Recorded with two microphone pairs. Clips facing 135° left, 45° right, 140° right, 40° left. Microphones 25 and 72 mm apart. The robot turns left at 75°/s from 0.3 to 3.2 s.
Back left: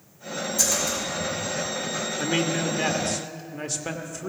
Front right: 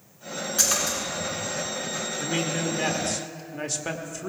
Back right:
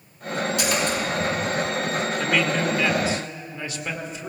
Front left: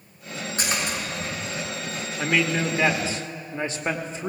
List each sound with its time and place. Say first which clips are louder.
0.6 s a splash: front right 1 dB, back right 2 dB; 10° right, 5 m; by 1.0 s 40° right, 5 m
2.2 s a man speaking: back left 3 dB, front left 2 dB; 120° left, 1.0 m; by 4.3 s 45° left, 1.0 m